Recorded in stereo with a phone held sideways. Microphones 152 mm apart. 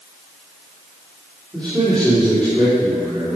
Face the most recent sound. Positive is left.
turn(degrees=5)  # may be behind; listen again after turning